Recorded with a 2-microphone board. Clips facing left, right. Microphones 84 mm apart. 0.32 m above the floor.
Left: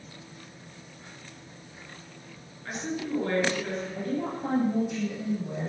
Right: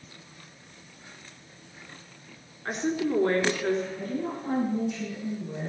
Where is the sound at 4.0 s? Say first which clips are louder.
Left 1 dB; 55° left (ahead or behind), 7.5 m.